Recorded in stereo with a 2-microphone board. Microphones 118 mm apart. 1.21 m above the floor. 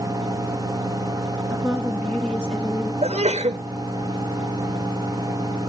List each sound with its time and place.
1.5 s a woman speaking: 5° left (ahead or behind), 2 m; by 2.9 s 5° right (ahead or behind), 1.4 m
3.0 s a sneeze: 65° right (ahead or behind), 0.9 m